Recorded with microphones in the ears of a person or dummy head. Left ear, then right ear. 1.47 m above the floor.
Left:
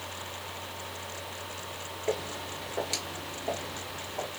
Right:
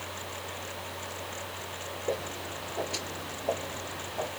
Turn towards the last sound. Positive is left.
turn(degrees=5)  # may be behind; listen again after turning